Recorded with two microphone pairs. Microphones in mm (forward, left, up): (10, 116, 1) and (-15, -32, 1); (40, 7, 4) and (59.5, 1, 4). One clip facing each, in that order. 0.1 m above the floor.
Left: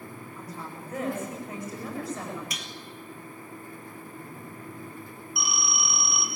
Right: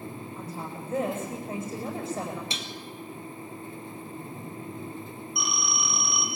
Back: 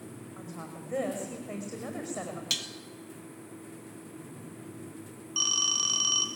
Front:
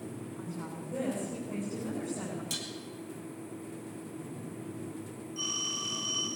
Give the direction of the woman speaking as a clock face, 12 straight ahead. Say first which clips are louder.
Right 1 dB, even; 5 o'clock.